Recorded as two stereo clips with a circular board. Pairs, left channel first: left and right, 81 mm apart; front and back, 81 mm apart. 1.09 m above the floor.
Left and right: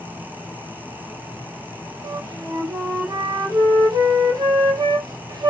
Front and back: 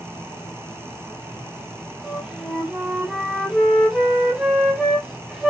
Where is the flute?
100° right, 0.8 m.